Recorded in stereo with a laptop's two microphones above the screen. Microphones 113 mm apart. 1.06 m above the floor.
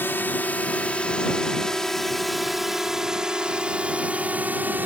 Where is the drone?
20° left (ahead or behind); by 4.9 s 15° right (ahead or behind).